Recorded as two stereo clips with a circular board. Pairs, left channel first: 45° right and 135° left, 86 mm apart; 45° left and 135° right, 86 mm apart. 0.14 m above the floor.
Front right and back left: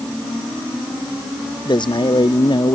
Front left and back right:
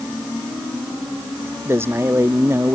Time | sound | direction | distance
1.6 | a man speaking | 75° right | ?